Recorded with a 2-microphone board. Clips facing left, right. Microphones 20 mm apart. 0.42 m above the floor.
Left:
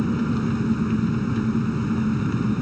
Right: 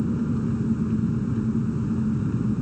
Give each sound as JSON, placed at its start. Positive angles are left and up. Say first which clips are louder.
{"t": 0.0, "sound": "an engine running", "louder": "left 2 dB", "side_deg": 75}